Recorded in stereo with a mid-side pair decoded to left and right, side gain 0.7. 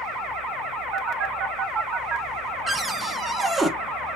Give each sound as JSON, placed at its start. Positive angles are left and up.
{"t": 0.9, "sound": "a phone buzzing", "azimuth_deg": -50, "distance_m": 0.9}
{"t": 2.7, "sound": "a cupboard door", "azimuth_deg": -20, "distance_m": 0.9}